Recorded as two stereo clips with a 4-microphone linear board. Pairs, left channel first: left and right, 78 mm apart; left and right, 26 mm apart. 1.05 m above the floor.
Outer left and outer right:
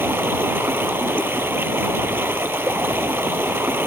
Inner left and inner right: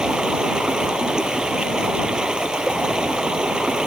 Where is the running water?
30° right (ahead or behind).